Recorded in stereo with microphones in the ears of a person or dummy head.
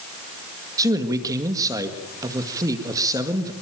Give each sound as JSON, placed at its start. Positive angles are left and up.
{"t": 0.8, "sound": "a man speaking", "side_deg": -20, "distance_m": 1.8}